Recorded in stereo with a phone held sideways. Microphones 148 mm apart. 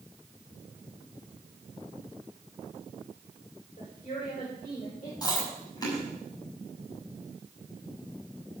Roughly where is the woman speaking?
Left.